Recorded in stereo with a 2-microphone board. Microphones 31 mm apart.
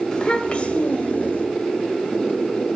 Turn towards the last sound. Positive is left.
turn(degrees=60)  # may be behind; listen again after turning